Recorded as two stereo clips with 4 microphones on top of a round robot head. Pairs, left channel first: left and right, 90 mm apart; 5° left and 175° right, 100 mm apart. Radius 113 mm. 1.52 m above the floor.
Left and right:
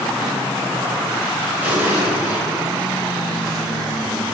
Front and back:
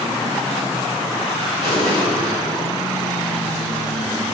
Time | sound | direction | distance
1.6 | an explosion | 20° right | 1.8 m